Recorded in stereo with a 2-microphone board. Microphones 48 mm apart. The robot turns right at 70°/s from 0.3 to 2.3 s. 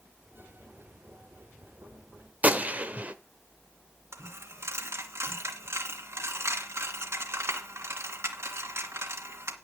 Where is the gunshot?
30° right (ahead or behind), 1.2 m.